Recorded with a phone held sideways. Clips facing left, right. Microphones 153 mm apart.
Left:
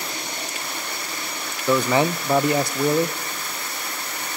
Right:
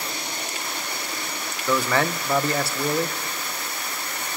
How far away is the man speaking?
About 0.7 m.